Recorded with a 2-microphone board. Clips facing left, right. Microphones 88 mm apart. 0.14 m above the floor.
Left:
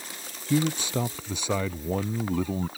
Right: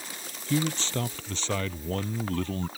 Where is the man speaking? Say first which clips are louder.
Left 3 dB; 10° left (ahead or behind).